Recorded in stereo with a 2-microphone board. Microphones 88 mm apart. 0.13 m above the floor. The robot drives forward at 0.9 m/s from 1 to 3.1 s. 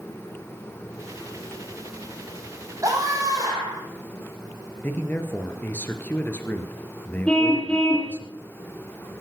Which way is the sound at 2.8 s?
40° right (ahead or behind).